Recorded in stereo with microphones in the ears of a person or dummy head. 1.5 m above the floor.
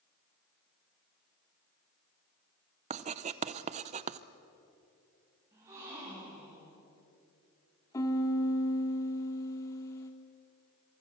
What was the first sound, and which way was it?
Writing, 35° right (ahead or behind).